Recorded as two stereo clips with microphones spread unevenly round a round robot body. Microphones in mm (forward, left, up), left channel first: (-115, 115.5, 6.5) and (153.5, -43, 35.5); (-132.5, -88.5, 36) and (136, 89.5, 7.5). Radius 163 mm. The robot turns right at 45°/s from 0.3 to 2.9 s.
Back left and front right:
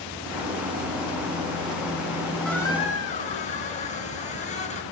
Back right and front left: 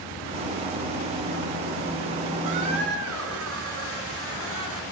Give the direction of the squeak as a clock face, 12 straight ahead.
10 o'clock.